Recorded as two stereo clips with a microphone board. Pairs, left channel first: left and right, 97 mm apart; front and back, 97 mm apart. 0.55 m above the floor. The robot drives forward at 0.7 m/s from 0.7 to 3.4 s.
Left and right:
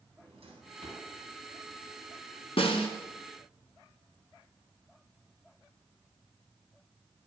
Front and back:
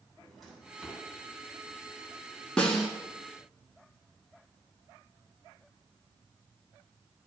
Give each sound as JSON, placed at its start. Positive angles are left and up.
{"t": 0.2, "sound": "a drawer", "azimuth_deg": -90, "distance_m": 2.5}
{"t": 2.6, "sound": "a snare drum", "azimuth_deg": 80, "distance_m": 1.5}